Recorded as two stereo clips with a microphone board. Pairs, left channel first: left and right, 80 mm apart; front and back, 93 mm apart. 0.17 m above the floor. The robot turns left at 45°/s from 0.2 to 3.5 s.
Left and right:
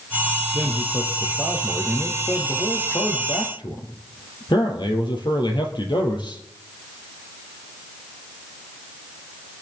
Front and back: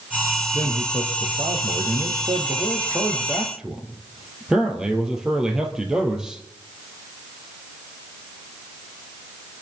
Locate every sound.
0.5 s a man speaking: 130° right, 3.5 m; by 6.4 s 95° left, 3.5 m